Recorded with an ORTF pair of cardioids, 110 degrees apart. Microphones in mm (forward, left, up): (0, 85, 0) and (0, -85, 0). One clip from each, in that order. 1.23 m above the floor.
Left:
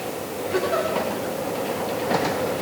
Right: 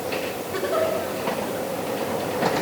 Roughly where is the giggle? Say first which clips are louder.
Even; ahead.